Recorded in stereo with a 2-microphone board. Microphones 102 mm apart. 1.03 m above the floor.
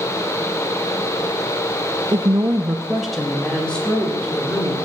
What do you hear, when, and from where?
2.1 s a woman speaking: 45° right (ahead or behind), 0.7 m; by 4.8 s 15° left (ahead or behind), 3 m